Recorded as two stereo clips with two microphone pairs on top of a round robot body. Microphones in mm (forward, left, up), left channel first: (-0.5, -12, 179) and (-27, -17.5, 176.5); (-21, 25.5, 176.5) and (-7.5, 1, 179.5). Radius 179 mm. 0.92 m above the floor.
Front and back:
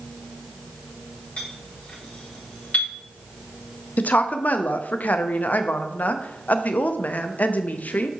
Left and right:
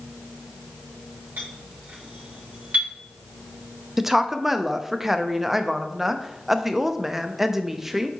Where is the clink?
35° right, 1.9 m.